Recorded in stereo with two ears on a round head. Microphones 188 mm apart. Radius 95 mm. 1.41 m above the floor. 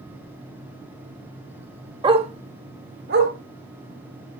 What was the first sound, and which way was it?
A dog barking, 20° right (ahead or behind).